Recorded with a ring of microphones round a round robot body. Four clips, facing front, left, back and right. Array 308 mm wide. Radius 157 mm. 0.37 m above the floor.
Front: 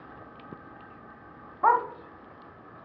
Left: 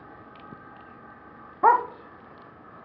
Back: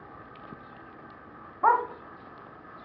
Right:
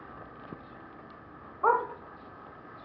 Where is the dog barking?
90° left, 0.7 m.